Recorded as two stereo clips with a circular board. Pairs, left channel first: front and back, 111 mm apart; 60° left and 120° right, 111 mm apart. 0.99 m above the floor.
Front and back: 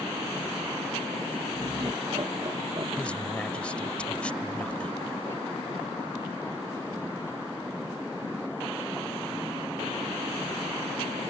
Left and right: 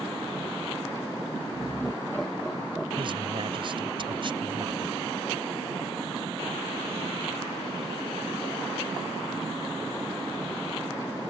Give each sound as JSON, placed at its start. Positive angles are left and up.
{"t": 1.5, "sound": "laughter", "azimuth_deg": 145}
{"t": 3.0, "sound": "a man speaking", "azimuth_deg": -80}